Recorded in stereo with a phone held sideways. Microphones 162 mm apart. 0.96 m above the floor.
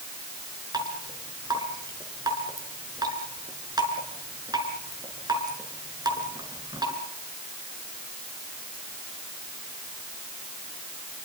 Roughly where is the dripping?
Right.